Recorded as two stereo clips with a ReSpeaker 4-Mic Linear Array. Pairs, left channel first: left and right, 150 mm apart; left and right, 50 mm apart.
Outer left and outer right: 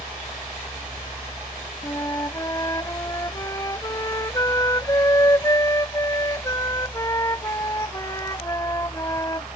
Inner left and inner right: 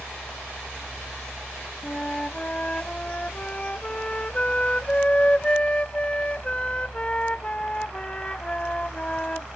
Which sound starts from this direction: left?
A flute, at 1.8 s.